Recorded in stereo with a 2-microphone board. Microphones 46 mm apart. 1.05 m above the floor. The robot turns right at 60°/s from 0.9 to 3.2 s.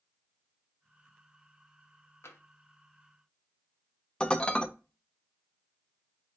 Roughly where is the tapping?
Left.